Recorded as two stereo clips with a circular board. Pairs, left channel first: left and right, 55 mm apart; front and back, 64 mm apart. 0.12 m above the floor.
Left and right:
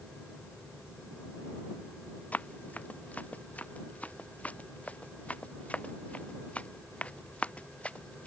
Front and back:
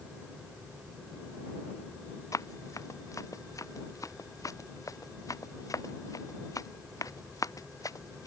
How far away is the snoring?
No snoring in this recording.